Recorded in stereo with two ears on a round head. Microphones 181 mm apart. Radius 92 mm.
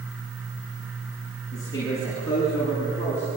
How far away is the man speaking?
About 9 m.